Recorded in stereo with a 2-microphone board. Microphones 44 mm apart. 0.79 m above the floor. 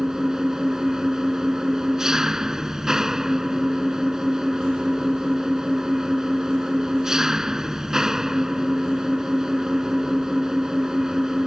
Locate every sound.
0.0 s an engine running: 10° right (ahead or behind)